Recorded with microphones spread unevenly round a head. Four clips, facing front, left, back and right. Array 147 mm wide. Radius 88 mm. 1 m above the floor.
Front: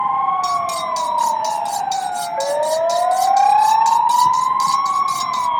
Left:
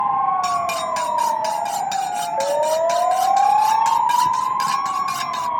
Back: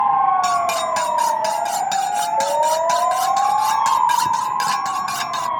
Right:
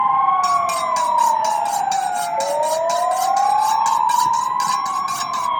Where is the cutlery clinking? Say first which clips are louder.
Right 3 dB, back 1 dB; 175° right.